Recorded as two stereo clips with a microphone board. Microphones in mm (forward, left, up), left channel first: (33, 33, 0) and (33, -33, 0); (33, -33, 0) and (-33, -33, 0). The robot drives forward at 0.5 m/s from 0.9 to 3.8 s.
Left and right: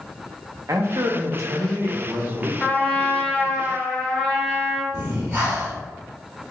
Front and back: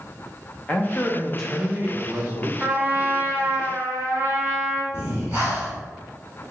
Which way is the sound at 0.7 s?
60° right.